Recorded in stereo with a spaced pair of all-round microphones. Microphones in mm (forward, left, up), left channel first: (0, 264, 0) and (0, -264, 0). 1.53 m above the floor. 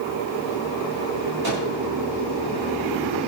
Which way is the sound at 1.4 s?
45° right (ahead or behind).